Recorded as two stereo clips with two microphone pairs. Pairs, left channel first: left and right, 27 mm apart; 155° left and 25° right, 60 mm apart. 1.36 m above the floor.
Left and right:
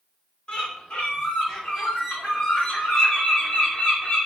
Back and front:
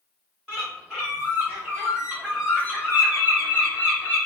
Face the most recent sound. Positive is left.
turn(degrees=50)